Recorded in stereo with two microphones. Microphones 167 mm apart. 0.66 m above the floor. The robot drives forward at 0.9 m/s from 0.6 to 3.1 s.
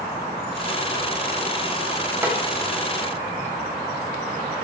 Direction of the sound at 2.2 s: 15° right (ahead or behind).